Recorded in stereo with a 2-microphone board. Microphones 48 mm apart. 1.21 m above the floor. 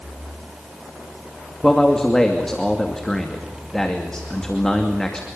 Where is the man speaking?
10° left (ahead or behind), 2.5 m.